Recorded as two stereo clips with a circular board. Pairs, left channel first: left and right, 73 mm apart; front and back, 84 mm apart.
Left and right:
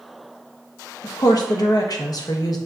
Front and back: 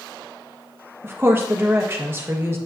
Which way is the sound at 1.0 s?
120° left.